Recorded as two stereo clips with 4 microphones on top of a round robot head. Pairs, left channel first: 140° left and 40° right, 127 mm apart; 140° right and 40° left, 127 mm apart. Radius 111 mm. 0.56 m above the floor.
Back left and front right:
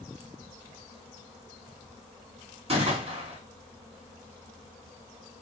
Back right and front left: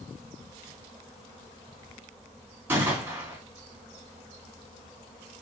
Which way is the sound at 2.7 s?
30° right.